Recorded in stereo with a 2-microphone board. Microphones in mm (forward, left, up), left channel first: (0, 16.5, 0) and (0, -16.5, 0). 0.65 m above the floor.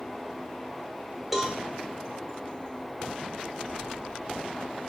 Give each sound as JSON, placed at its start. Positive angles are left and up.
{"t": 1.3, "sound": "a cowbell", "side_deg": -5, "distance_m": 0.6}